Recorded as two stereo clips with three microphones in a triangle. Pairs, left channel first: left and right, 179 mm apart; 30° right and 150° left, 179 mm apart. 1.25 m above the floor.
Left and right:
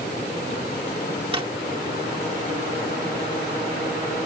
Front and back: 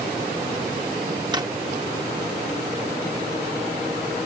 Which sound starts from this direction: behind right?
A drawer, at 1.3 s.